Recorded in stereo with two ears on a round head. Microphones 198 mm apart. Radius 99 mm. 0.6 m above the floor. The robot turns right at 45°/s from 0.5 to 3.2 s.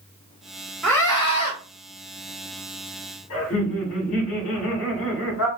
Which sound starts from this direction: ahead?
A scream, at 0.8 s.